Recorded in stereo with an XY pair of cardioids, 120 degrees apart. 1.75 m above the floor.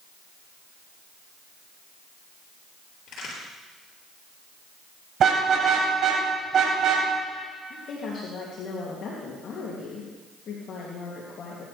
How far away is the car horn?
About 5 m.